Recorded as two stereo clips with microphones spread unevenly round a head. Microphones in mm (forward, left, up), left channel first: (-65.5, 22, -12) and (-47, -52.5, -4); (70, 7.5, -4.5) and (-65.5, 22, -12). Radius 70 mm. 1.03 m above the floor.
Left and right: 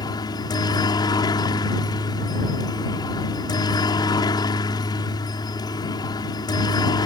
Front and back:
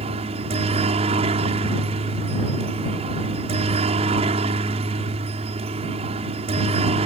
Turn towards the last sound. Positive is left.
turn(degrees=130)